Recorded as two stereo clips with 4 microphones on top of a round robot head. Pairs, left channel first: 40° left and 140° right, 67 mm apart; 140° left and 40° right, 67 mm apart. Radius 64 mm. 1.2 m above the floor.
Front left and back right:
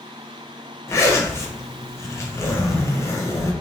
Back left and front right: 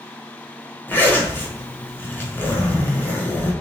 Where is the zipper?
80° left, 1.0 m.